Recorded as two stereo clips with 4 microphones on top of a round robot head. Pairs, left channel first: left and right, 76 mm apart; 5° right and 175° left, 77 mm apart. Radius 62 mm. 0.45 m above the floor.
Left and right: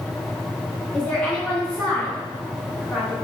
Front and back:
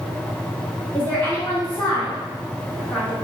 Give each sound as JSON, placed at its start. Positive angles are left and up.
{"t": 0.9, "sound": "a woman speaking", "azimuth_deg": 35, "distance_m": 0.8}